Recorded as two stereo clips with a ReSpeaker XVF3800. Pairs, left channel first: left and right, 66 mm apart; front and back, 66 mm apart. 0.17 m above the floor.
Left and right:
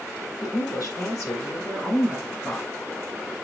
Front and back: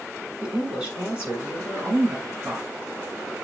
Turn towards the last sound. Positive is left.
turn(degrees=140)